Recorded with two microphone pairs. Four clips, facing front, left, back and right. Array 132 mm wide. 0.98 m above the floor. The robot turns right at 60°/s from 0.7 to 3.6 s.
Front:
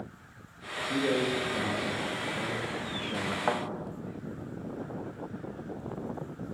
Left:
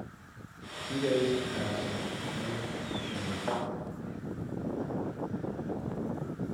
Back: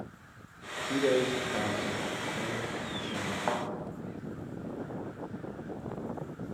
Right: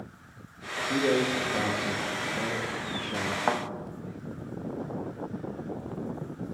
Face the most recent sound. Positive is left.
turn(degrees=-75)